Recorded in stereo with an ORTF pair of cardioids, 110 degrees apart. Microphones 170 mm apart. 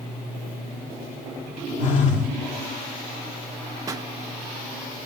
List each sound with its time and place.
1.8 s a phone buzzing: 45° left, 2 m
3.9 s a pop: 20° right, 0.9 m